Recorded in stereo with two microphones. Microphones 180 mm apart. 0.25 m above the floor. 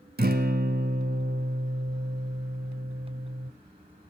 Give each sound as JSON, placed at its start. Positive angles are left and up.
{"t": 0.2, "sound": "a guitar", "side_deg": -60, "distance_m": 1.1}